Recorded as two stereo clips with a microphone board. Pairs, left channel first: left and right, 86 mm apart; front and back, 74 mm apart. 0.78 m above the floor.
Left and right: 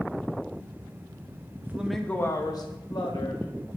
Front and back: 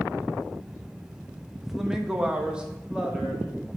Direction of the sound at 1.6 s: 95° right.